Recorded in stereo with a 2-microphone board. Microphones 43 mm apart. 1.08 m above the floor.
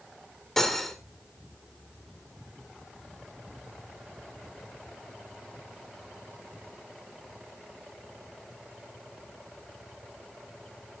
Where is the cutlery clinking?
5° left (ahead or behind), 2 m.